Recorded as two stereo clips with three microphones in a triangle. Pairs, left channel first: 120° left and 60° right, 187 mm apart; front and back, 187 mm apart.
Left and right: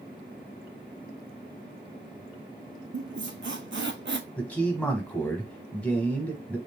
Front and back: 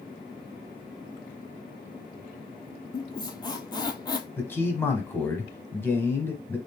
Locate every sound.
2.9 s a squeak: 65° right, 0.5 m
4.4 s a man speaking: 55° left, 1.0 m